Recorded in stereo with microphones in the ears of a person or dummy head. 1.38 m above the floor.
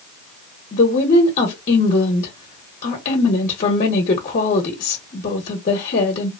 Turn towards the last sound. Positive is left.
turn(degrees=40)  # may be behind; listen again after turning